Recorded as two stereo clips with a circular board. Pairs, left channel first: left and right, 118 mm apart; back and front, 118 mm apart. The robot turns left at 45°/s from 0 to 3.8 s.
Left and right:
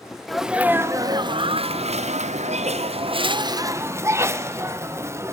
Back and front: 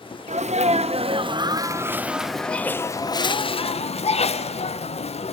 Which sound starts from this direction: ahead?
A sneeze, at 0.3 s.